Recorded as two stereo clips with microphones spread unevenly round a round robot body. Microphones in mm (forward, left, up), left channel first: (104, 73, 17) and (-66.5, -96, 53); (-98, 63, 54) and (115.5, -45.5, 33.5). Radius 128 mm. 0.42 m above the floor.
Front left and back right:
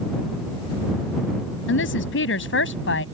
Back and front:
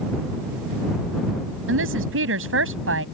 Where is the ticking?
I don't hear ticking.